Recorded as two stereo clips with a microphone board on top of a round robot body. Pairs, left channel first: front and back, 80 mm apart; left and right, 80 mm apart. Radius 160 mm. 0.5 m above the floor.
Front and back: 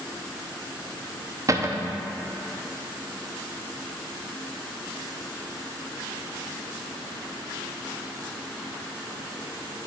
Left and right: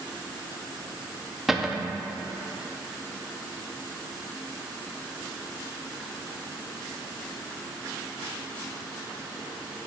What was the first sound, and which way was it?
A cupboard door, 175° right.